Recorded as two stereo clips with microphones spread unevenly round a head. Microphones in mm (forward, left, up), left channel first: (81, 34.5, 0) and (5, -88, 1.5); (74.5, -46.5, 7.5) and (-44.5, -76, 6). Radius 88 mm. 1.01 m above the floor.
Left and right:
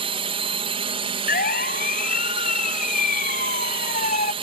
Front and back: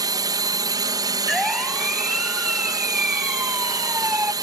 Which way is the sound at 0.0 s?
135° right.